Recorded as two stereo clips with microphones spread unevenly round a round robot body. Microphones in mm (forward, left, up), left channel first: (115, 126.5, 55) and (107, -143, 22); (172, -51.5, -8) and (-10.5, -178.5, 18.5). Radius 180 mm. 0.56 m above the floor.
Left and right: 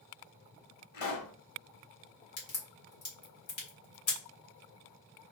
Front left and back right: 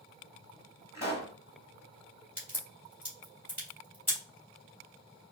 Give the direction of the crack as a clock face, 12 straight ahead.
8 o'clock.